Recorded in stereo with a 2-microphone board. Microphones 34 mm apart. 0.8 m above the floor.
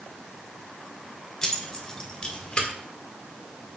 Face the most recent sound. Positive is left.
turn(degrees=35)  # may be behind; listen again after turning